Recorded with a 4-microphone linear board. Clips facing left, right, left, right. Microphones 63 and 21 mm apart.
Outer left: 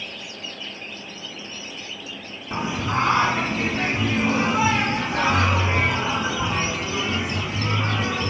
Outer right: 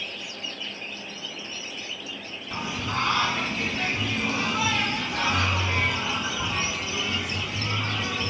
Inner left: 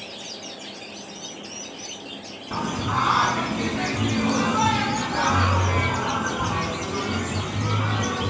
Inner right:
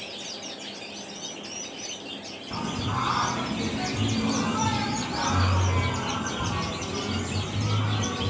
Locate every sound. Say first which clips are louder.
2.5 s singing: outer left 5 dB, inner left 5 dB; 20° left (ahead or behind), 0.9 m